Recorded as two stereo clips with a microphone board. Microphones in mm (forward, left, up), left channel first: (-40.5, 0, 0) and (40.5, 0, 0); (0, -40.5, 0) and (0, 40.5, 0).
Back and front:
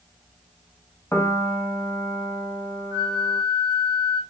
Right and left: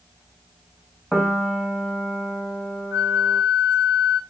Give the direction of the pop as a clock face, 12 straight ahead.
I don't hear a pop.